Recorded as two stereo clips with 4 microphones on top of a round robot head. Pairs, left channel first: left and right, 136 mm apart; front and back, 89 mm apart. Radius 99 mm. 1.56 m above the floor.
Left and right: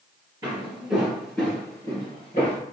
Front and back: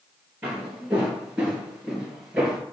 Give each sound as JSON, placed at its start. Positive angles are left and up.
{"t": 0.4, "sound": "footsteps", "azimuth_deg": -120, "distance_m": 1.6}